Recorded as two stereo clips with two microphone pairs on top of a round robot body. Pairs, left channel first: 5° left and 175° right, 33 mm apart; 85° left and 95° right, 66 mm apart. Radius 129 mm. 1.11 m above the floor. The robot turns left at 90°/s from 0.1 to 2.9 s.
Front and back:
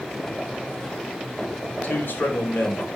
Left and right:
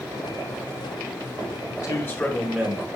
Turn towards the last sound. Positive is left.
turn(degrees=-45)